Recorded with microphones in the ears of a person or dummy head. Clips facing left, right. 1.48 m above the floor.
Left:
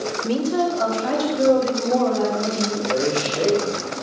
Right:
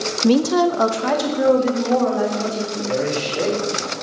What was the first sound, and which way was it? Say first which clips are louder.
A woman speaking: right 6 dB; 60° right (ahead or behind).